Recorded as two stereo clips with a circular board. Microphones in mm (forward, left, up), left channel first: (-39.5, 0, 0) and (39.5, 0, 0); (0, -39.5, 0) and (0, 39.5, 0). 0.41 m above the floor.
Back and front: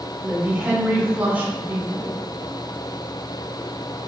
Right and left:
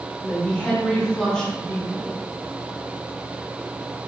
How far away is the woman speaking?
About 0.8 m.